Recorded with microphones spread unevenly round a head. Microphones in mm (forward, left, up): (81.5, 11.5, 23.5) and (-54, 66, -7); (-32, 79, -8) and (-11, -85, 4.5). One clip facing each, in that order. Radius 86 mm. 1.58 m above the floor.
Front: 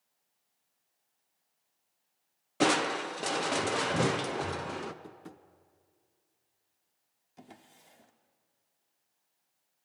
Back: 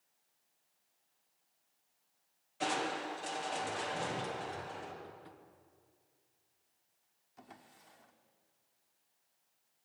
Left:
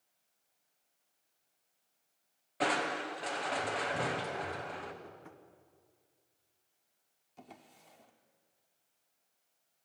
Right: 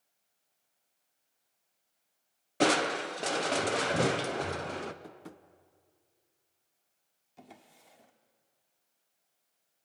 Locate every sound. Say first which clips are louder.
2.6 s crushing: front 8 dB, right 6 dB; 35° right, 1.0 m
5.0 s tapping: front 4 dB, right 3 dB; 40° right, 0.7 m
7.4 s a drawer: front 3 dB, right 1 dB; 5° right, 1.3 m